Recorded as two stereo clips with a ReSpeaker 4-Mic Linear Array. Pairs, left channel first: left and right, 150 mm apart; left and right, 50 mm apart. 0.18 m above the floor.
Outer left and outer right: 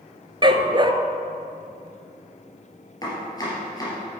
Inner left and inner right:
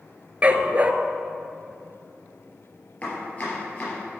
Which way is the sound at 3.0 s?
25° left (ahead or behind).